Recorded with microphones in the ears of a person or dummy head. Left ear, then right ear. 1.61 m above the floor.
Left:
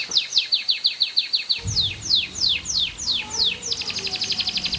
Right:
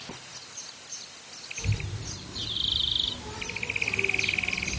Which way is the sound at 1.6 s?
70° left (ahead or behind).